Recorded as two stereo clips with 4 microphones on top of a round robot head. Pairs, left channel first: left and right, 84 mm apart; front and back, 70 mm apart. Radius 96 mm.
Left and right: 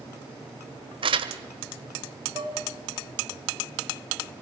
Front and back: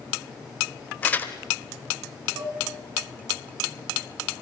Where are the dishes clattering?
120° right, 3.5 m.